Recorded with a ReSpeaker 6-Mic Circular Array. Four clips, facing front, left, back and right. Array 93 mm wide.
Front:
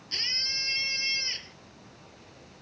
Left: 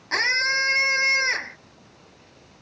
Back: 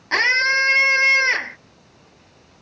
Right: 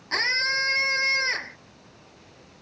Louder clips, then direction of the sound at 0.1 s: Left 3 dB, back 23 dB; 175° left.